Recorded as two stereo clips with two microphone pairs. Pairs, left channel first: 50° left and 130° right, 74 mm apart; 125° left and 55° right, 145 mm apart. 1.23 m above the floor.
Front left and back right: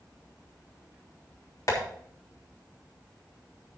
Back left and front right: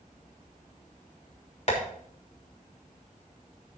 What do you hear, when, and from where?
1.7 s tapping: 85° left, 3.5 m